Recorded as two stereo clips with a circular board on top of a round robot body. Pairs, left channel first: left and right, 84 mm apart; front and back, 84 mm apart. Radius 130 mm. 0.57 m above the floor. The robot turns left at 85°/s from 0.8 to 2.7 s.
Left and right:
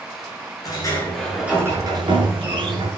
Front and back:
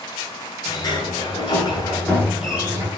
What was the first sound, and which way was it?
A sliding door, 45° left.